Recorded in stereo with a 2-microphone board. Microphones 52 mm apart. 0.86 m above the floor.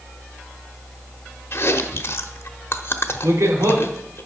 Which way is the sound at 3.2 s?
75° right (ahead or behind).